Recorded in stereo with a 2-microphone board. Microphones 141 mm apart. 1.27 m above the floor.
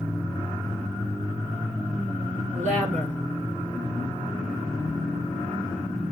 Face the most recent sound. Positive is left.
turn(degrees=-60)  # may be behind; listen again after turning